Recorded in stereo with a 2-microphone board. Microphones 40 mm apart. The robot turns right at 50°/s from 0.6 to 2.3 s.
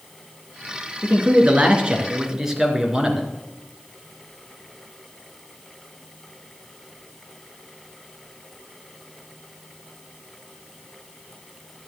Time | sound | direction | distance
1.0 | a man speaking | 85° right | 2 m